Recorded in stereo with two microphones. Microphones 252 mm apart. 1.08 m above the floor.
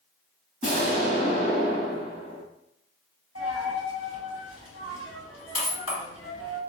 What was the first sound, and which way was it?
An explosion, 30° left (ahead or behind).